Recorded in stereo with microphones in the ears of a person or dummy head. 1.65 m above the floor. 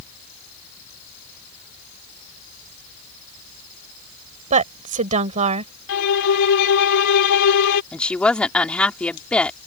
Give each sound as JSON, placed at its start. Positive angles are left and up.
{"t": 4.5, "sound": "a woman speaking", "side_deg": -40}
{"t": 5.9, "sound": "a violin", "side_deg": 75}
{"t": 7.9, "sound": "a woman speaking", "side_deg": 5}